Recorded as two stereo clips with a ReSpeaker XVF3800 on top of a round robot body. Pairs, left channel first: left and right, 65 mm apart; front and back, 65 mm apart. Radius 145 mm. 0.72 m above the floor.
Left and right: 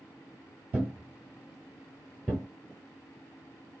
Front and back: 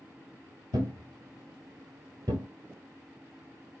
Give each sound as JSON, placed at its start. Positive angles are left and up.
{"t": 0.7, "sound": "a thud", "azimuth_deg": -165, "distance_m": 0.9}